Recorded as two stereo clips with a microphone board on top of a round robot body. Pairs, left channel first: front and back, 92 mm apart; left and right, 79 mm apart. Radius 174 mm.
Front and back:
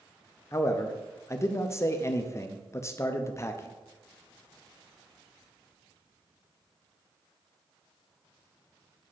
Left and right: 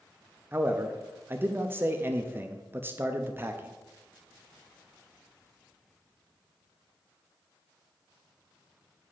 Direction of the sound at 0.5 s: 45° right.